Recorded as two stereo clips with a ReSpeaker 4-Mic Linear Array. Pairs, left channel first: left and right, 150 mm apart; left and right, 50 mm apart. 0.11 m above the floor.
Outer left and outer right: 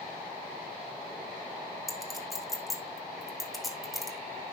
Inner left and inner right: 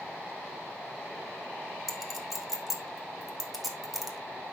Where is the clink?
Centre (ahead or behind), 3.5 m.